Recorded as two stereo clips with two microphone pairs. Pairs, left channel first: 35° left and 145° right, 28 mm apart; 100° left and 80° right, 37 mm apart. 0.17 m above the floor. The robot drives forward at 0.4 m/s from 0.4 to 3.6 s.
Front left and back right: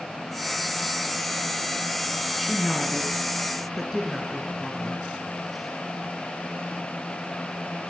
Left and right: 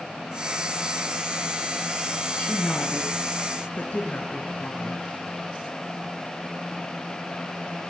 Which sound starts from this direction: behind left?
A woman speaking, at 2.4 s.